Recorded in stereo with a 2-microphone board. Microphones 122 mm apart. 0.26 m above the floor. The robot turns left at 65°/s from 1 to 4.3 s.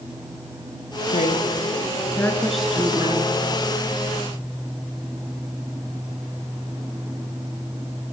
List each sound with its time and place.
1.1 s a woman speaking: 95° left, 3.5 m; by 3.4 s 55° right, 3.5 m